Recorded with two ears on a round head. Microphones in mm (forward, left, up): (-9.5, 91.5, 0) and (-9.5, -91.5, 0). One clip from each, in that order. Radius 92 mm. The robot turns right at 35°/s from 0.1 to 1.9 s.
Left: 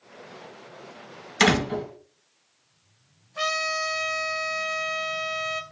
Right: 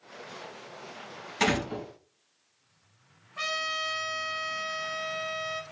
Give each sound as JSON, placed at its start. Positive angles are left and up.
{"t": 1.4, "sound": "a door slam", "side_deg": 70, "distance_m": 4.5}
{"t": 3.4, "sound": "a trumpet", "side_deg": 5, "distance_m": 0.9}